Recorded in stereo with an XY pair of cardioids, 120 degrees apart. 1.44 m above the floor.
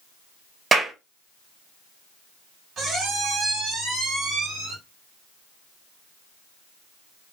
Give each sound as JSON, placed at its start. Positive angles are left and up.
{"t": 0.7, "sound": "a clap", "azimuth_deg": -30, "distance_m": 1.4}
{"t": 2.8, "sound": "a squeak", "azimuth_deg": -55, "distance_m": 1.8}